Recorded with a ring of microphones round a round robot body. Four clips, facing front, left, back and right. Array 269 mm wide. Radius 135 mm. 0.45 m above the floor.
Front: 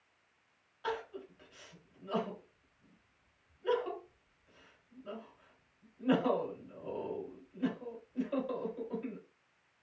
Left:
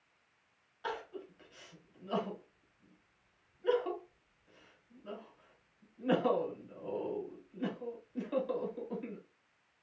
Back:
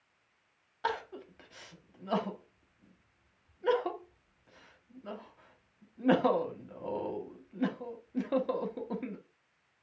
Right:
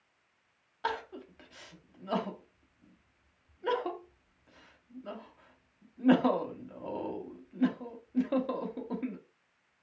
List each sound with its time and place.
0.8 s crying: 140° right, 0.7 m